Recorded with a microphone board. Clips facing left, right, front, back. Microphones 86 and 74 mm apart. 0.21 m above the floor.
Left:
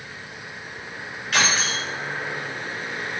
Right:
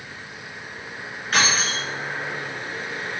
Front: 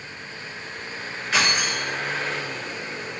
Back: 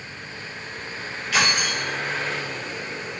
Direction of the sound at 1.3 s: 40° right.